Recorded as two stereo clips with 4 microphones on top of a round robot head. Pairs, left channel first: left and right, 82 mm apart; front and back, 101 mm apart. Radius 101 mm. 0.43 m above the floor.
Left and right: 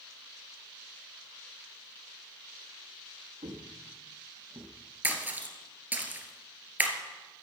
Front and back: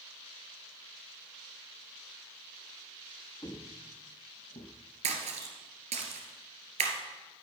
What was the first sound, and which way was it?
Footsteps, 65° right.